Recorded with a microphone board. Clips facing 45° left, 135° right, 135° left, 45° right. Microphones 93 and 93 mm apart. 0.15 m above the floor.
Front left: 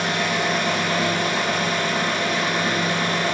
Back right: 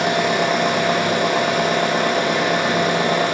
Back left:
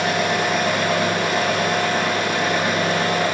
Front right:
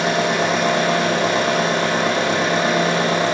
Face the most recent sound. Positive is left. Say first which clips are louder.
# back right 5 dB, front right 2 dB
turn(degrees=-110)